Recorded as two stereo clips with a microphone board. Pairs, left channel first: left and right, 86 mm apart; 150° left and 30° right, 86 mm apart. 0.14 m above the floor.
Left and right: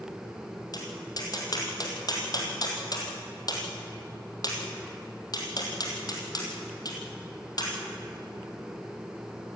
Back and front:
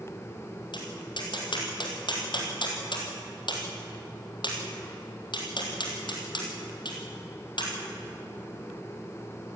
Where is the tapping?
130° left, 3.5 m.